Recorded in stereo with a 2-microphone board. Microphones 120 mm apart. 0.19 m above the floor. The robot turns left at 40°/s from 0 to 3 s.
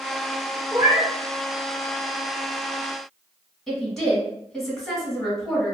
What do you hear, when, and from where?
0.7 s a cat meowing: 20° right (ahead or behind), 1.3 m; by 1.1 s 35° right (ahead or behind), 1.3 m
3.7 s a woman speaking: centre (ahead or behind), 1.2 m